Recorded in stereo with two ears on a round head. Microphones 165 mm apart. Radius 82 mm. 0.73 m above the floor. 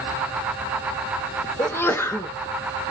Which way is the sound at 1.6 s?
15° left (ahead or behind).